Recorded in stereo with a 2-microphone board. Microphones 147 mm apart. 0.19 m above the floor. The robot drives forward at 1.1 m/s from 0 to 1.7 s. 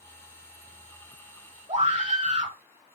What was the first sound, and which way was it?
A scream, 50° right (ahead or behind).